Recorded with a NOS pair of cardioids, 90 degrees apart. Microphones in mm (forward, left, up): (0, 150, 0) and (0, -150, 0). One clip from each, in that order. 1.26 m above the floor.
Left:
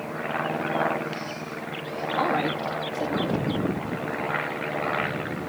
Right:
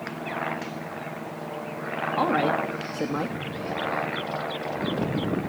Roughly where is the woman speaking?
Ahead right.